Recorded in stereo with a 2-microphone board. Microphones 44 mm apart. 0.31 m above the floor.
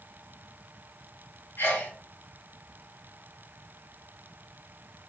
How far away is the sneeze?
About 2.5 m.